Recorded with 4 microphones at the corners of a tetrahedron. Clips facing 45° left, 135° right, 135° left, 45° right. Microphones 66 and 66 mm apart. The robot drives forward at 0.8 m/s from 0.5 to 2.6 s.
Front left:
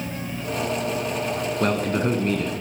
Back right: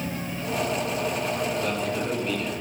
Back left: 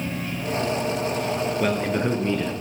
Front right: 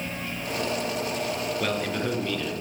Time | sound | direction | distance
1.6 | a man speaking | 60° left | 2 m